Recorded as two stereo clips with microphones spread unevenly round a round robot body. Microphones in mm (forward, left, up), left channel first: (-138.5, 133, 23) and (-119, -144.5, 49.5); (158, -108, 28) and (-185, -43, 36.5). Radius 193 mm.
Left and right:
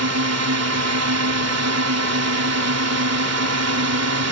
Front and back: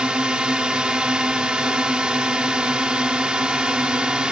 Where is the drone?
105° right.